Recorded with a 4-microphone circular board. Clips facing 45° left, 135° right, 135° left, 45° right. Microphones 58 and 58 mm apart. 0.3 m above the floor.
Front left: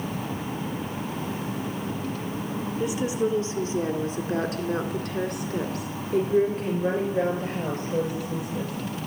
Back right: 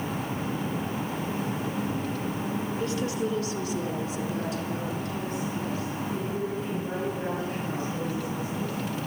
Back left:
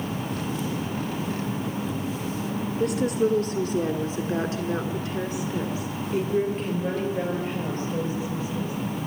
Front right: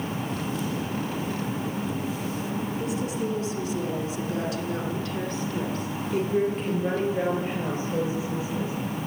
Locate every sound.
2.8 s a woman speaking: 120° left, 4 m; by 8.7 s 30° left, 8.5 m